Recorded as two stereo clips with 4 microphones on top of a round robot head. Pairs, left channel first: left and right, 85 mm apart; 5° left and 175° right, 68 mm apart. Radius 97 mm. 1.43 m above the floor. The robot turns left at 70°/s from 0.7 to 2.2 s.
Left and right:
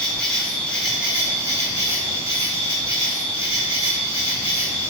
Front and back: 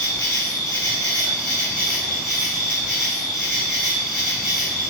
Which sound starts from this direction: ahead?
An insect, at 0.0 s.